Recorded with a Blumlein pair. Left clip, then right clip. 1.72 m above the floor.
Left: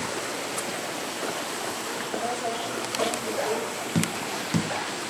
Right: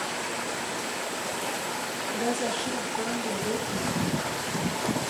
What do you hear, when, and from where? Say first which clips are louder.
2.1 s a woman speaking: right 1 dB; 45° right, 3.5 m; by 3.9 s 40° right, 4.5 m
4.0 s tapping: left 1 dB; 35° left, 0.7 m